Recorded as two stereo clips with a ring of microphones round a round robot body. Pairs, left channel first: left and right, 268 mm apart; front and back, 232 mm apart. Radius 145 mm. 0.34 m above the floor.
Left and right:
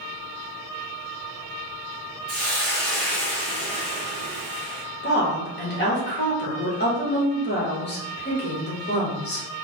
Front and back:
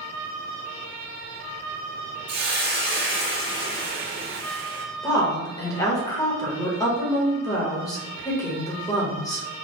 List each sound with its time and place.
2.3 s a hiss: 135° left, 2.0 m
5.0 s a woman speaking: 70° left, 1.3 m